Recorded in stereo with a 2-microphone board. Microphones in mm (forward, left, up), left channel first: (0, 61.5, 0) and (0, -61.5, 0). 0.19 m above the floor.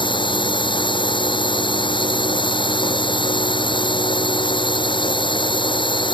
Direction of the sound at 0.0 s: 40° left (ahead or behind).